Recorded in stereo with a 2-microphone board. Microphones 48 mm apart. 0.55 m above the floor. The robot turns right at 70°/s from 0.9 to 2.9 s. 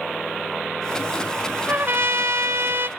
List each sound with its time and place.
1.7 s a trumpet: 140° right, 0.8 m; by 2.9 s 55° right, 0.8 m